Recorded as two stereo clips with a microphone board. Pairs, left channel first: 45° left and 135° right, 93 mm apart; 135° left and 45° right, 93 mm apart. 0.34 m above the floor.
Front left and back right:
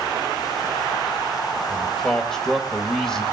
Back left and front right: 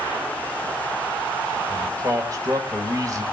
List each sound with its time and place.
1.7 s a man speaking: 35° right, 1.5 m